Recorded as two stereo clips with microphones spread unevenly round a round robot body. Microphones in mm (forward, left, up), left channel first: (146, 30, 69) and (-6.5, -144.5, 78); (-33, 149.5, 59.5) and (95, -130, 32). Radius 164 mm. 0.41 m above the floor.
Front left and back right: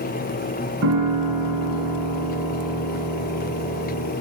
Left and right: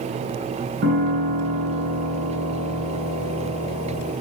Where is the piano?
120° right, 3 m.